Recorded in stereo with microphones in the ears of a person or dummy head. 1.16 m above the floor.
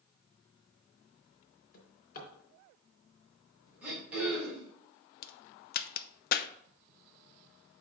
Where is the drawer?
50° left (ahead or behind), 3.5 m.